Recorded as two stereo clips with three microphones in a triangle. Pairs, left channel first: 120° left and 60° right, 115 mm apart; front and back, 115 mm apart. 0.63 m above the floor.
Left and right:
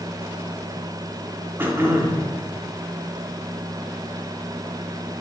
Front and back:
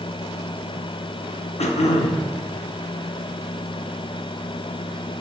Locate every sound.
1.6 s throat clearing: 5° left, 0.6 m